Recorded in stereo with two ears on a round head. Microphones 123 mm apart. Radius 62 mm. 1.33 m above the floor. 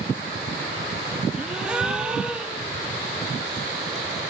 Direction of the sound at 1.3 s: 5° right (ahead or behind).